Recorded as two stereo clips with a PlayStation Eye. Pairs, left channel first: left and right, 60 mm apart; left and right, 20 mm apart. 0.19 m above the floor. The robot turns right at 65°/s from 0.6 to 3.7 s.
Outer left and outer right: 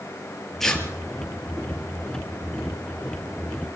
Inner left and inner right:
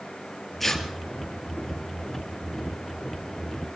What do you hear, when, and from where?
0.6 s tearing paper: 5° left (ahead or behind), 4.5 m; by 0.8 s 20° left (ahead or behind), 4.5 m